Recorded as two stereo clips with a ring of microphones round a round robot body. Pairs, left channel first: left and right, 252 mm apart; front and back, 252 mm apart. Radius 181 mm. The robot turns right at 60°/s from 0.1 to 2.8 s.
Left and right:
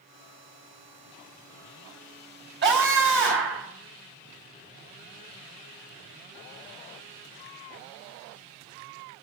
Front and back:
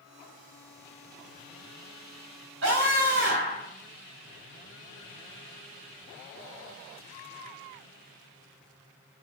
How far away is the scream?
About 3.5 m.